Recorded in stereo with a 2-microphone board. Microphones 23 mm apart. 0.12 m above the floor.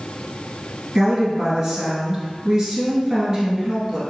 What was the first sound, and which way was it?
A woman speaking, 25° right (ahead or behind).